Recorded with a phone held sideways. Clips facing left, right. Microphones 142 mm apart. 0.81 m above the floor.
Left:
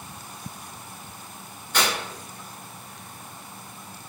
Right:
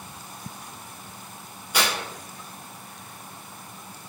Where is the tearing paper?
10° right (ahead or behind), 1.2 m.